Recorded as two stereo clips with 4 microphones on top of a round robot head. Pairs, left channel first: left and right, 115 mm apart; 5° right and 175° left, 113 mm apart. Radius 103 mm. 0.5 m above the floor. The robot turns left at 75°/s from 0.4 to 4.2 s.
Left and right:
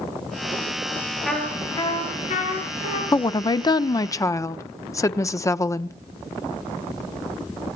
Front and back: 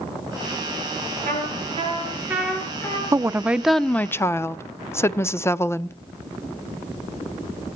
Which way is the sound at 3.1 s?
130° left.